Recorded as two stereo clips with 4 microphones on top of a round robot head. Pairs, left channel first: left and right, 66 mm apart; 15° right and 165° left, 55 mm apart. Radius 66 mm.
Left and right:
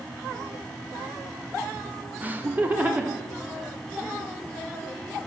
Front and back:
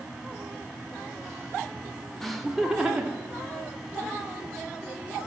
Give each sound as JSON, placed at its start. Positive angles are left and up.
{"t": 2.2, "sound": "laughter", "azimuth_deg": -95, "distance_m": 1.3}